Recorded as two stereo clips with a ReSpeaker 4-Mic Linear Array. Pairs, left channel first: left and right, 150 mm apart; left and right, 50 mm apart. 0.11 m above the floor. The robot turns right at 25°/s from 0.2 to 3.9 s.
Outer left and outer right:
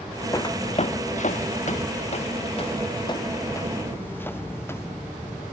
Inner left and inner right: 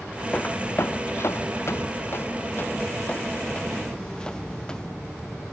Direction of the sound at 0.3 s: 25° left (ahead or behind).